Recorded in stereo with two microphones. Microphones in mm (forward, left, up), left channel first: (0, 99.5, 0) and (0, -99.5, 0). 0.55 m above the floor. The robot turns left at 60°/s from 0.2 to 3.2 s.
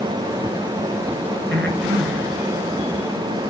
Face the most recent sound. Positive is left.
turn(degrees=-10)  # may be behind; listen again after turning